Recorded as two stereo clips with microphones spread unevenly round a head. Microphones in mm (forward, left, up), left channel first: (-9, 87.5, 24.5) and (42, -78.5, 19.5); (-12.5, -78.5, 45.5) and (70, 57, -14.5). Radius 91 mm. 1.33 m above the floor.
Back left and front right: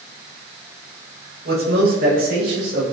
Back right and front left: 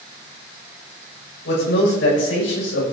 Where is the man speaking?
110° right, 7 m; by 2.8 s 120° right, 7.5 m.